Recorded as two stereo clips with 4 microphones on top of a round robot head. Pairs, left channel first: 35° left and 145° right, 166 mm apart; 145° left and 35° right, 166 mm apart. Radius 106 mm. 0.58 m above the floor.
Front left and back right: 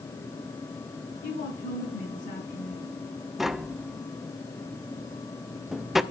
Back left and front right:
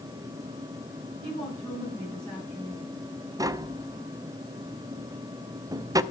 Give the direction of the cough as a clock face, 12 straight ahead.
No cough in this recording.